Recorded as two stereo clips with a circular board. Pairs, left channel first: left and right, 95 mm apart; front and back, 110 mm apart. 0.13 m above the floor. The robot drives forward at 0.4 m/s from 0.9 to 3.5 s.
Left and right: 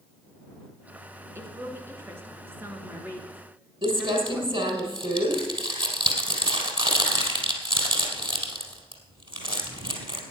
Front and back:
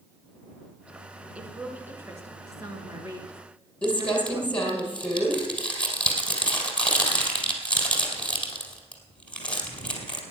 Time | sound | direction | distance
1.4 | a woman speaking | 110° right | 1.4 m
3.8 | crumpling | 80° right | 3 m